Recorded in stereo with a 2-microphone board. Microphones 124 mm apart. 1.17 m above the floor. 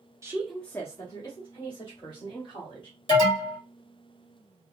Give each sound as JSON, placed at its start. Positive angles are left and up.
{"t": 0.2, "sound": "a woman speaking", "side_deg": -25, "distance_m": 0.6}
{"t": 3.1, "sound": "an alarm", "side_deg": 35, "distance_m": 2.5}